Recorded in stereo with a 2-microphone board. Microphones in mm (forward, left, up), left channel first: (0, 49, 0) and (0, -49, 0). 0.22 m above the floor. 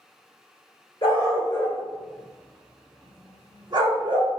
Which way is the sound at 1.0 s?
45° left (ahead or behind).